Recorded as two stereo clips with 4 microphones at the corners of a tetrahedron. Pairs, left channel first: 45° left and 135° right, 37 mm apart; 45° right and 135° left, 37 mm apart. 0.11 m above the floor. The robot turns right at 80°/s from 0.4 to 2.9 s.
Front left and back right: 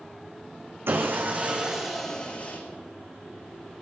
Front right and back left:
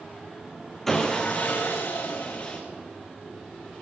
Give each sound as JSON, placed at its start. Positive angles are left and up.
{"t": 0.9, "sound": "sawing", "azimuth_deg": -130, "distance_m": 4.0}